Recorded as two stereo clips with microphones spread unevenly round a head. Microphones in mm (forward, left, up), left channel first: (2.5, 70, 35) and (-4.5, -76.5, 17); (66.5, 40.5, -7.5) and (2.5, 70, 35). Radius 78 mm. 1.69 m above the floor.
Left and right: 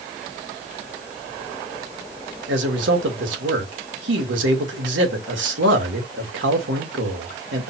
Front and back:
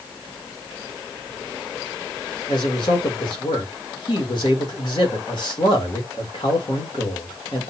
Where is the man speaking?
90° right, 1.8 m.